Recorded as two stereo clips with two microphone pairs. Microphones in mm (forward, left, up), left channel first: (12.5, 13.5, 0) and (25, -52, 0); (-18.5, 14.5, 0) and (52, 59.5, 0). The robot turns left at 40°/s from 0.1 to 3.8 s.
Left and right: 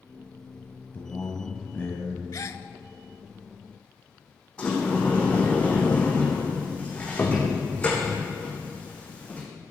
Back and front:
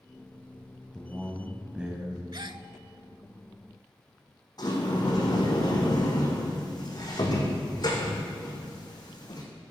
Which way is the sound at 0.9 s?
130° left.